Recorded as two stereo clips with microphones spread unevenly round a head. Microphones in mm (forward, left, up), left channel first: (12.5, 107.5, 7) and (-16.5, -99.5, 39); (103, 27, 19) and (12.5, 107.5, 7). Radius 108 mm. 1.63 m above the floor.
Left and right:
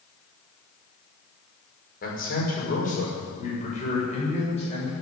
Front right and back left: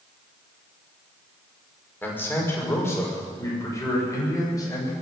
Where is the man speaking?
30° left, 5.5 m; by 4.9 s 20° left, 7.5 m.